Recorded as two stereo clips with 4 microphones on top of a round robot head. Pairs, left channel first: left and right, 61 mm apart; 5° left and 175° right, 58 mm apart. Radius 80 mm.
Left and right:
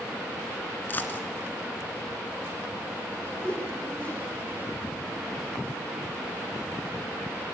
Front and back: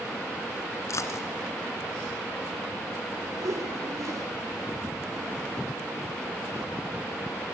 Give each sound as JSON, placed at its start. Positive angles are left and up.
{"t": 0.9, "sound": "a dropped coin", "azimuth_deg": 35, "distance_m": 2.0}
{"t": 3.4, "sound": "a whoosh", "azimuth_deg": 165, "distance_m": 4.0}